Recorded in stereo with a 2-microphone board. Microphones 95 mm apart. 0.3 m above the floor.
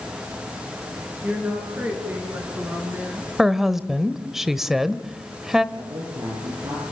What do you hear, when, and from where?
1.2 s a woman speaking: 15° right (ahead or behind), 5.5 m; by 3.3 s 25° right (ahead or behind), 3.5 m
3.4 s a woman speaking: 5° right (ahead or behind), 0.9 m
5.8 s a man speaking: 75° right (ahead or behind), 6.5 m